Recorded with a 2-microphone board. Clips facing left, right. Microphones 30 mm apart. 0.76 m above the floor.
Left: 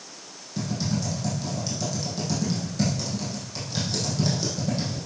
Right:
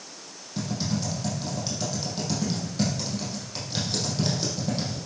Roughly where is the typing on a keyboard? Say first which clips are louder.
Left 1 dB; centre.